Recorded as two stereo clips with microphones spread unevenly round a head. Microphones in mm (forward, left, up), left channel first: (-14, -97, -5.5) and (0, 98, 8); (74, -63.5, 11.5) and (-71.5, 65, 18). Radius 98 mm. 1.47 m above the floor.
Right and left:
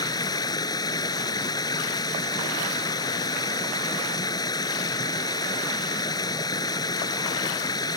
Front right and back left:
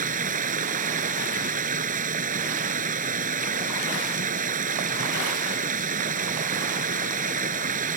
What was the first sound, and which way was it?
Running water, 165° right.